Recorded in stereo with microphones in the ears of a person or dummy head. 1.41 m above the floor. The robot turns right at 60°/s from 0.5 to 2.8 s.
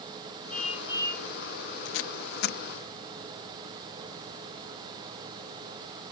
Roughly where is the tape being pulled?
Left.